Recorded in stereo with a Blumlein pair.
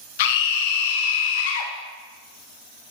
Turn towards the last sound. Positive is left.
turn(degrees=50)